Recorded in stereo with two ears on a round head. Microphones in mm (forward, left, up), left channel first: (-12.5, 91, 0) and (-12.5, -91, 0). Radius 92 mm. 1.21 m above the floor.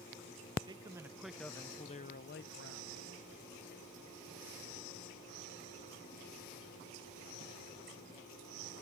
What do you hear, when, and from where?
0.7 s a man speaking: 25° right (ahead or behind); by 3.1 s 70° left (ahead or behind)